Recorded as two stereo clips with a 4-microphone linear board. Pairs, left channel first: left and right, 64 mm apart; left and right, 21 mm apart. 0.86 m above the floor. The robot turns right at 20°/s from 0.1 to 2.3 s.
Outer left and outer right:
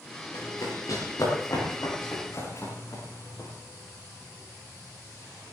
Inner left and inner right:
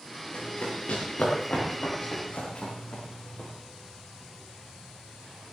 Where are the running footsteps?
75° left (ahead or behind), 6 m; by 3.5 s 55° left (ahead or behind), 8.5 m.